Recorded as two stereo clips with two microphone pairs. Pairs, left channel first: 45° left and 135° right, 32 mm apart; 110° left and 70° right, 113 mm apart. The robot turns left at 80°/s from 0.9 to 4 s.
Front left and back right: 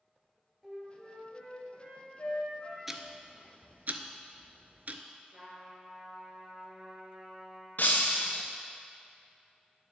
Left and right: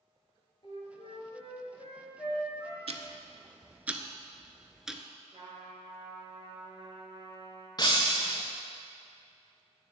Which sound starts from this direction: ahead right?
Ticking, at 2.9 s.